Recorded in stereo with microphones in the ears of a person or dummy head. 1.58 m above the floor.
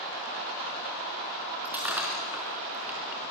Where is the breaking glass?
10° right (ahead or behind), 4 m.